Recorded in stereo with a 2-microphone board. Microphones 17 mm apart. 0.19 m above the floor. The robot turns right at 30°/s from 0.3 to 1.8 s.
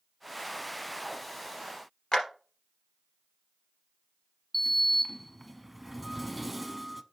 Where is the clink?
No clink in this recording.